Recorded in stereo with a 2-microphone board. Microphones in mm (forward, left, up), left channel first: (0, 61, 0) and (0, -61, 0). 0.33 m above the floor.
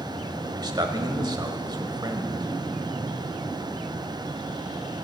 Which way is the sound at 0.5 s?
35° right (ahead or behind).